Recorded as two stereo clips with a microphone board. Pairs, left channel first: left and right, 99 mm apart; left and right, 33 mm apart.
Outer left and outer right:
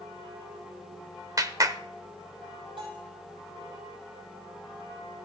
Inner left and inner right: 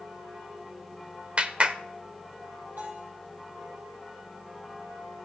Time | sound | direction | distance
1.4 | a clap | 35° right (ahead or behind) | 0.8 m
2.8 | a bell | 65° right (ahead or behind) | 5 m